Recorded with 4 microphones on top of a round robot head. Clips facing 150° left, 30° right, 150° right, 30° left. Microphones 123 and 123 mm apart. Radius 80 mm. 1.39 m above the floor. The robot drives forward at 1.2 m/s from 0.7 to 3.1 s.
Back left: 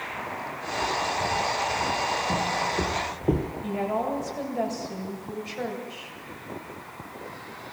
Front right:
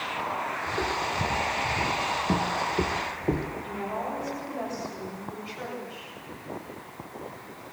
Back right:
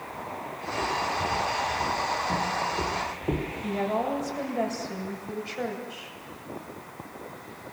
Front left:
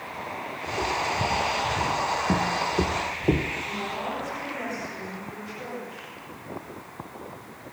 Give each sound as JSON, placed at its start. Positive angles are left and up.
{"t": 0.7, "sound": "footsteps", "azimuth_deg": -10, "distance_m": 4.5}
{"t": 3.6, "sound": "a woman speaking", "azimuth_deg": -175, "distance_m": 7.5}